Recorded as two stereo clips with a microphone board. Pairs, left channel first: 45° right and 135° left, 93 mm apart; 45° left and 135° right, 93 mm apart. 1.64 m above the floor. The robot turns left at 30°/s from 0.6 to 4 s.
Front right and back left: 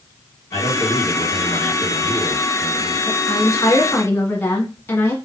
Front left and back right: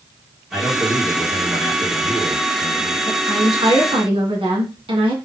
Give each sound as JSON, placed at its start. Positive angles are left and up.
{"t": 0.5, "sound": "a man speaking", "azimuth_deg": -55, "distance_m": 1.7}
{"t": 3.1, "sound": "a woman speaking", "azimuth_deg": -85, "distance_m": 1.6}